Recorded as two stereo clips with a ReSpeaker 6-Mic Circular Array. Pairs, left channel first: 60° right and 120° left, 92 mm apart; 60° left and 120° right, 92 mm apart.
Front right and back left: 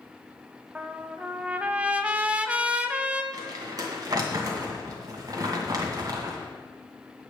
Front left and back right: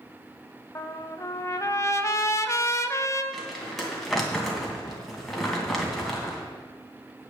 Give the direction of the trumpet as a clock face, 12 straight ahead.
10 o'clock.